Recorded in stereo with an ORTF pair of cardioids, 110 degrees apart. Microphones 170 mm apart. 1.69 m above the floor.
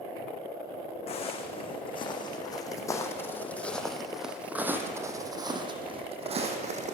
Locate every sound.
1.1 s footsteps: 40° left, 7.5 m; by 7.0 s 50° right, 6 m